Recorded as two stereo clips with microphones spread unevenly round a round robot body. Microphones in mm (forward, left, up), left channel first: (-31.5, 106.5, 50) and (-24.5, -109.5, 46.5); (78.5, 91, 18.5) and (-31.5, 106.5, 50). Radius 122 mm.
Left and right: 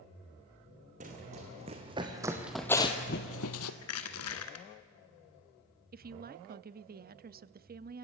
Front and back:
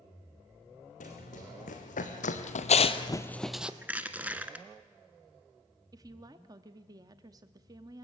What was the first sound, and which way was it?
Running footsteps, 30° right.